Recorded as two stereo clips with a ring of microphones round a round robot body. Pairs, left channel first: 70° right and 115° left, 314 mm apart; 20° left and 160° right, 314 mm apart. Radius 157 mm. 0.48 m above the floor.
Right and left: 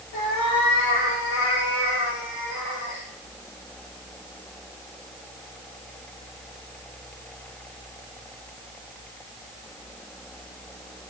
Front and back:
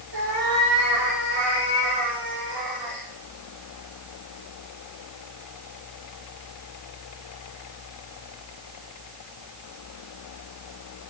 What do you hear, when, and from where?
0.1 s a cat meowing: 110° right, 6 m